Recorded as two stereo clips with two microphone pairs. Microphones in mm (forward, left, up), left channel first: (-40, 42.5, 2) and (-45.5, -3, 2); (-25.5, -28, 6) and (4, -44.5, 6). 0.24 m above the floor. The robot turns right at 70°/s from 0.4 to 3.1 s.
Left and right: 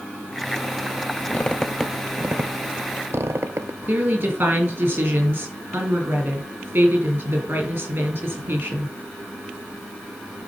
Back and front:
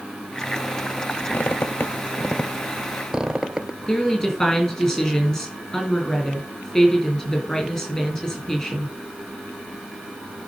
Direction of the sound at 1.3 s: 135° left.